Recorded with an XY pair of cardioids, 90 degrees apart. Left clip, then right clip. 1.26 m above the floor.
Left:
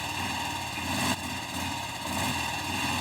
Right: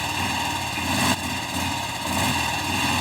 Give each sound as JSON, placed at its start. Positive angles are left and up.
{"t": 0.0, "sound": "a motorcycle", "azimuth_deg": -55}